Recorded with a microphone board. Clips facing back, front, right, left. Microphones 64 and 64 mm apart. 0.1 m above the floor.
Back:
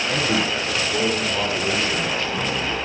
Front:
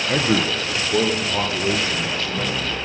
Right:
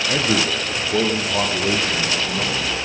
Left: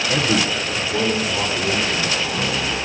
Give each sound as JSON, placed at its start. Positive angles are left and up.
{"t": 0.1, "sound": "a man speaking", "azimuth_deg": -15, "distance_m": 1.4}